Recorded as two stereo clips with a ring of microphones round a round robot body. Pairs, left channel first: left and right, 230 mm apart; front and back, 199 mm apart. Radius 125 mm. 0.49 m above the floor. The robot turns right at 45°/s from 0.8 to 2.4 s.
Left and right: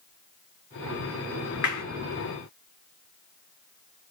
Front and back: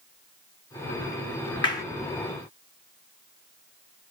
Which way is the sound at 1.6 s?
65° left.